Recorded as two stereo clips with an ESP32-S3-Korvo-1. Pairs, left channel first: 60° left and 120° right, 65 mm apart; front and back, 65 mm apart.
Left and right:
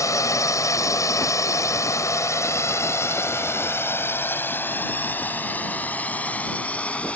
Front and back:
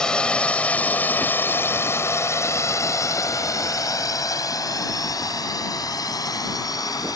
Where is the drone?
75° left; by 7.2 s 10° right.